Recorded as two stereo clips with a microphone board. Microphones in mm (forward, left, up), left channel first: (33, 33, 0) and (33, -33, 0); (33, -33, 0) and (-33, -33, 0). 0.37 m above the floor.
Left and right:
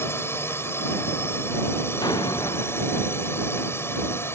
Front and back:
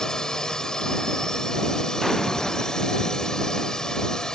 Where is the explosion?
85° left.